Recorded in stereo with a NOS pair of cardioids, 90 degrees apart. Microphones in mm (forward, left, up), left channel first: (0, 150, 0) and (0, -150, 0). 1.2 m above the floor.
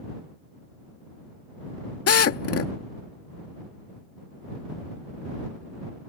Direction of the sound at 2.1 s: 50° left.